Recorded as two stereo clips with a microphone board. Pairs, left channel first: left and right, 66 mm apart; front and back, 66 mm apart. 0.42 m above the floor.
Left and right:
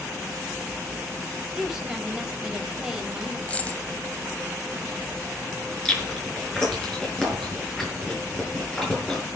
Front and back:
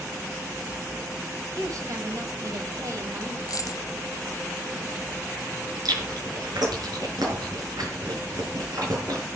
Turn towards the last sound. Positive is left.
turn(degrees=170)